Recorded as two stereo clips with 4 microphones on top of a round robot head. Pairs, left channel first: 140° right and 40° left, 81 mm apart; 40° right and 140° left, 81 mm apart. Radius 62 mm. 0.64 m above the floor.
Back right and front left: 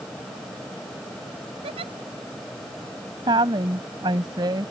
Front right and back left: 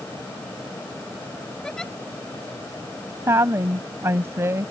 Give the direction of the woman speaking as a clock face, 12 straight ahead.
9 o'clock.